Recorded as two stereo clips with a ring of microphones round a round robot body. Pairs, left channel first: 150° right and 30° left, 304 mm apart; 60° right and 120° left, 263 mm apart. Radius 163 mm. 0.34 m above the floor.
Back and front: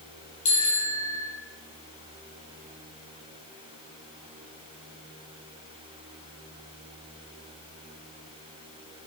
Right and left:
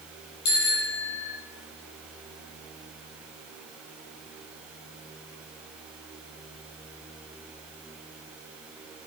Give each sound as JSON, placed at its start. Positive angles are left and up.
{"t": 0.5, "sound": "a bicycle bell", "azimuth_deg": -85, "distance_m": 8.0}